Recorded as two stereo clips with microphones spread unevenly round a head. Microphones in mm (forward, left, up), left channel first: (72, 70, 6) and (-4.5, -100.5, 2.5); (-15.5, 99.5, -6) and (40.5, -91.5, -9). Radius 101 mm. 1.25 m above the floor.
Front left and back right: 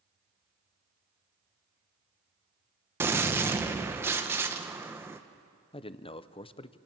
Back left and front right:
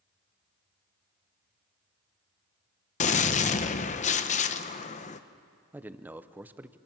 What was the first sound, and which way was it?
A gunshot, 165° left.